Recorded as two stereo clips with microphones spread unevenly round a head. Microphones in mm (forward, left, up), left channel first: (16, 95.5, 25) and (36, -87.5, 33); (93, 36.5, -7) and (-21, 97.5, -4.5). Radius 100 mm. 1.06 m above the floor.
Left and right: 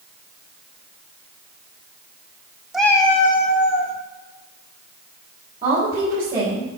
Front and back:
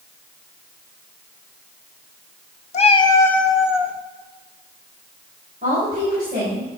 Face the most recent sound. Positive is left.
turn(degrees=-145)